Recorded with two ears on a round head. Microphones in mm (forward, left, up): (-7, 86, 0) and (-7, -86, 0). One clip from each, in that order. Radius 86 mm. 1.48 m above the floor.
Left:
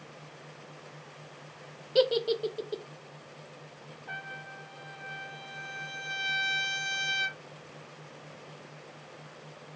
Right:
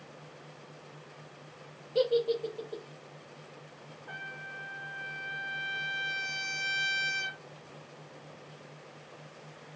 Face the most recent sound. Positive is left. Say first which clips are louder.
# left 1 dB
turn(degrees=15)  # may be behind; listen again after turning